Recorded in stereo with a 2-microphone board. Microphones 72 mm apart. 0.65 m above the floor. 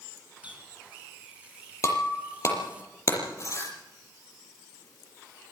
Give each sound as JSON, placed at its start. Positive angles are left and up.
{"t": 0.4, "sound": "a running tap", "side_deg": -20, "distance_m": 4.5}
{"t": 1.8, "sound": "breaking glass", "side_deg": 45, "distance_m": 7.0}